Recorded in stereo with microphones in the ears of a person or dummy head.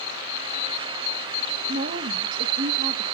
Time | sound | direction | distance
1.7 | a woman speaking | 45° right (ahead or behind) | 1.2 m